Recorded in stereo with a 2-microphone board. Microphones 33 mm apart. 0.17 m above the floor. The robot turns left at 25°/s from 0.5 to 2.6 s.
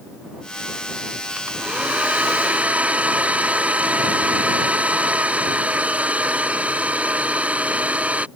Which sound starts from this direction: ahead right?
A hair dryer, at 1.4 s.